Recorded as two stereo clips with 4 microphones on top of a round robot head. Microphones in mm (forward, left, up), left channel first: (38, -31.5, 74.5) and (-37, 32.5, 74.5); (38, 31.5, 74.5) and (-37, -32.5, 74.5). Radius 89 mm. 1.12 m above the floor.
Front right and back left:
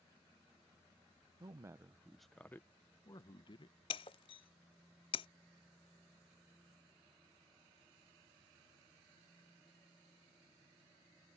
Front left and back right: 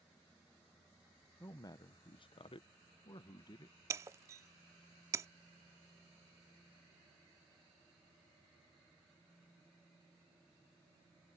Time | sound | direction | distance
1.4 | a man speaking | 95° left | ?
3.9 | breaking glass | 80° right | ?